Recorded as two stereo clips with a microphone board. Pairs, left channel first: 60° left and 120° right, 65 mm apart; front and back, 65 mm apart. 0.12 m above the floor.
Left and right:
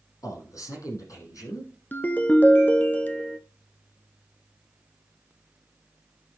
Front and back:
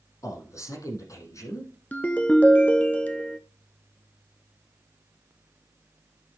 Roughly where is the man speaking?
Ahead left.